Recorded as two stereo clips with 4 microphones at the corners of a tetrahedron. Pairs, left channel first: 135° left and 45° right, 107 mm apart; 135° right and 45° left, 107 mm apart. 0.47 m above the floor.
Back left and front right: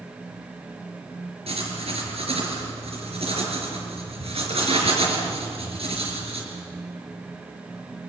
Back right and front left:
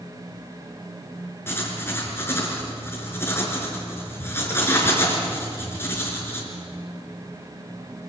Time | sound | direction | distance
1.5 | writing | 65° right | 4.5 m